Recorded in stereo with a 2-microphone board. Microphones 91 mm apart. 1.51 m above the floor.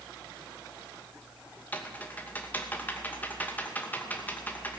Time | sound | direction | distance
1.7 | typing on a keyboard | 20° left (ahead or behind) | 2.5 m